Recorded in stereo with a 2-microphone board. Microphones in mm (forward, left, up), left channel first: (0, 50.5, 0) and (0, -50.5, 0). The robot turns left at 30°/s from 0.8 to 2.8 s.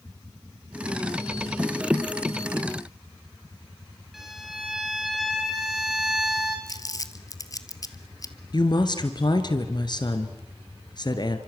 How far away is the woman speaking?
About 2 m.